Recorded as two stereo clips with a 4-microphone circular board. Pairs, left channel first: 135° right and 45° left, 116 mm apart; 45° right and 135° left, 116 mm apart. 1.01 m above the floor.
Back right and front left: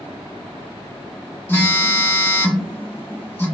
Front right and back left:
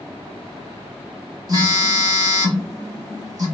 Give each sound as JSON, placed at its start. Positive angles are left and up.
{"t": 1.5, "sound": "a phone buzzing", "azimuth_deg": 165, "distance_m": 1.0}